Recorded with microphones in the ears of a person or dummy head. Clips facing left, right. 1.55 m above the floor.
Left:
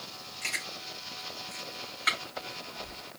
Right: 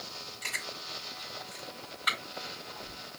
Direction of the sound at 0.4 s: 35° left (ahead or behind).